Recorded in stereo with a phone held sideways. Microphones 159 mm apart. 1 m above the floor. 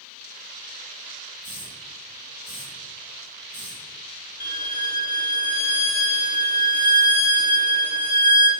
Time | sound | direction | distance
1.4 | a hiss | 55° left (ahead or behind) | 4 m
4.4 | a violin | 65° left (ahead or behind) | 1.5 m